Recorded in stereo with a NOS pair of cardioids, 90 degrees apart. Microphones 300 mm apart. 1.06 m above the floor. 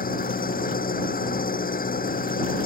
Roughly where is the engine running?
Ahead left.